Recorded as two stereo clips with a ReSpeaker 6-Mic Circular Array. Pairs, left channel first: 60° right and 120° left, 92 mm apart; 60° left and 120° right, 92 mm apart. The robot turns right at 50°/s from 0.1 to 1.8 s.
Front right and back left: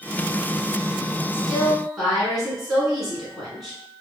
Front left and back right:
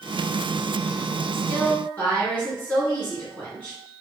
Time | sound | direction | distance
1.3 | a woman speaking | straight ahead | 1.6 m